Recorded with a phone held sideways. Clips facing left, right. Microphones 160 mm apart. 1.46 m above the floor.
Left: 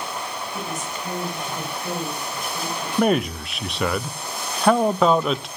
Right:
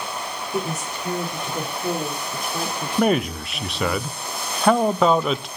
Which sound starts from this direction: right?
A woman speaking, at 0.5 s.